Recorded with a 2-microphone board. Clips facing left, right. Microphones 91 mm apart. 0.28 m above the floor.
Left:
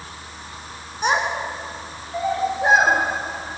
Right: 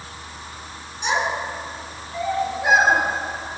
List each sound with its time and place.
1.0 s a child speaking: 45° left (ahead or behind), 2.5 m; by 3.6 s 25° left (ahead or behind), 6 m